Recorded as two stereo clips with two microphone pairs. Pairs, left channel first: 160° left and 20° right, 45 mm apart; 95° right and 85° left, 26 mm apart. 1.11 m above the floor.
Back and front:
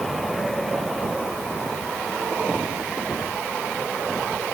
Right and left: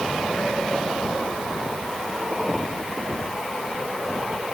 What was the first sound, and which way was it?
Only background noise.